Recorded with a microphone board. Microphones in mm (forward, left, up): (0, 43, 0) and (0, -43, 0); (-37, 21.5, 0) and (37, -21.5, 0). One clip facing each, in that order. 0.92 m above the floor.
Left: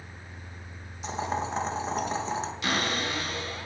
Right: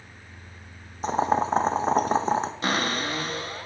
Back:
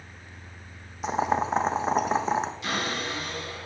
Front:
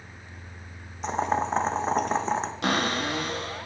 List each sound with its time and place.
1.0 s boiling: 125° right, 0.6 m
2.6 s a cupboard door: 40° right, 1.8 m